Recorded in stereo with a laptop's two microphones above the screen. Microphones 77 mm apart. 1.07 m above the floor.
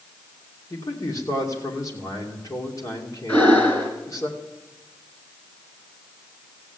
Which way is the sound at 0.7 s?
45° left (ahead or behind).